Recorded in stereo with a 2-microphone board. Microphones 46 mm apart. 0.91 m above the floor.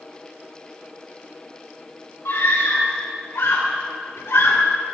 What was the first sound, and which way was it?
A scream, 75° left (ahead or behind).